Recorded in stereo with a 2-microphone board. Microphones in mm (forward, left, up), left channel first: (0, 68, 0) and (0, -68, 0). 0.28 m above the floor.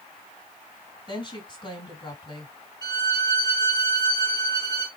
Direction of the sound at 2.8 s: 30° left (ahead or behind).